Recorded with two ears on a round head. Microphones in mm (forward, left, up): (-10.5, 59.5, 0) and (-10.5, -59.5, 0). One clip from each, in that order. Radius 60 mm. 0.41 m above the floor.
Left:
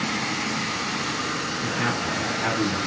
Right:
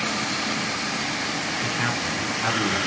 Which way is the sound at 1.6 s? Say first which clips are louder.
Left 1 dB; 75° right (ahead or behind).